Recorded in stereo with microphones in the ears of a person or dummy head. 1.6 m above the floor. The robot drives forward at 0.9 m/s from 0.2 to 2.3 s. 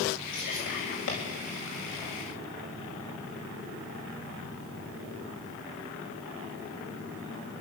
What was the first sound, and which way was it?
Whispering, 70° left (ahead or behind).